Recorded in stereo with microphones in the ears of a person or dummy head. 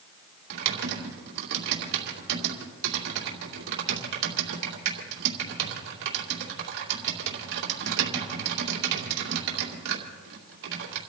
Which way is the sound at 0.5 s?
65° right (ahead or behind).